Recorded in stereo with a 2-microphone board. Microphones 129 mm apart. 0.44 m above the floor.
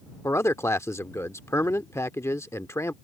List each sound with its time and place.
0.2 s a man speaking: 20° left (ahead or behind)